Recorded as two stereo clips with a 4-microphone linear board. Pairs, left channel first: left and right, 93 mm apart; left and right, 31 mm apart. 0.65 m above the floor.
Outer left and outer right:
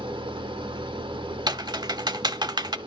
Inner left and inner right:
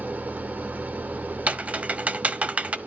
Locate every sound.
0.0 s an engine running: 60° right (ahead or behind), 0.9 m
1.5 s typing on a keyboard: 50° right (ahead or behind), 0.7 m